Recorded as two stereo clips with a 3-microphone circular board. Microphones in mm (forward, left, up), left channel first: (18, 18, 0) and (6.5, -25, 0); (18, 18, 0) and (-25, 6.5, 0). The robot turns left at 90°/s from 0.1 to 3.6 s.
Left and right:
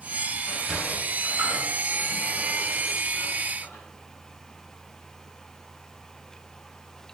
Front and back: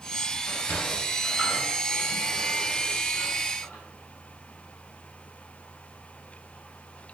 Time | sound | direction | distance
0.5 | a sliding door | 5° right | 2.5 m